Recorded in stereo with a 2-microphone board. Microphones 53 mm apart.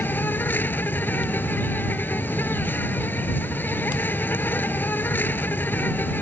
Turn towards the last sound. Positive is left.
turn(degrees=40)  # may be behind; listen again after turning